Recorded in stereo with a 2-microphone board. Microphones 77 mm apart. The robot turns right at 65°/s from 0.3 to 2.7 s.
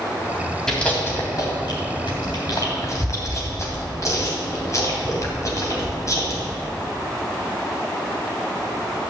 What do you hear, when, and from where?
0.7 s chewing: 5° left (ahead or behind), 3 m; by 6.4 s 45° left (ahead or behind), 3 m